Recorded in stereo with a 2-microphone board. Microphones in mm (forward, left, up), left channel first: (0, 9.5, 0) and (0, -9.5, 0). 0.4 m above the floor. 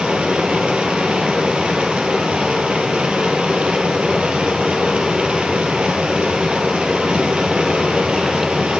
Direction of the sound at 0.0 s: 90° right.